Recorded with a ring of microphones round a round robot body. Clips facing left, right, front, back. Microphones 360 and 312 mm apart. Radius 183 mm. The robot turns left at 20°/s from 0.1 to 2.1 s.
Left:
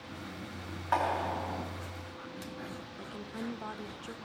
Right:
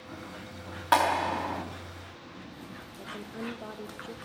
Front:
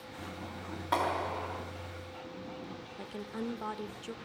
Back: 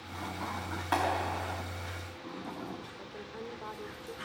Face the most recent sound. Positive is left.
turn(degrees=25)